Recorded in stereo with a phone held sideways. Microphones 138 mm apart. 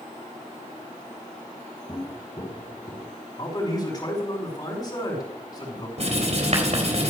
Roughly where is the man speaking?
Left.